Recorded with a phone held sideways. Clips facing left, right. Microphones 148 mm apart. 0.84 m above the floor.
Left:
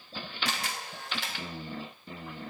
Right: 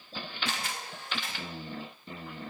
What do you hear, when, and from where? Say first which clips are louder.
0.5 s a camera shutter: left 2 dB; 85° left, 3 m